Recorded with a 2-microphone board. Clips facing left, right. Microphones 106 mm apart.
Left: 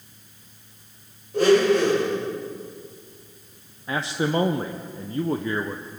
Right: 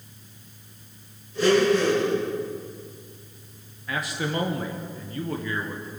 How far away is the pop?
No pop in this recording.